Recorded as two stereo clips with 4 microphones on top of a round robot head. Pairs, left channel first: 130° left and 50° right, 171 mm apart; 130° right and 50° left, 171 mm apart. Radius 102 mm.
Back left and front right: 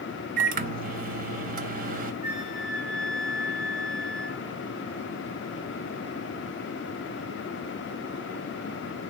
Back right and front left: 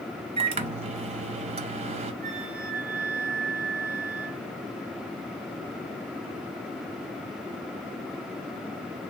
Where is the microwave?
10° right, 0.5 m.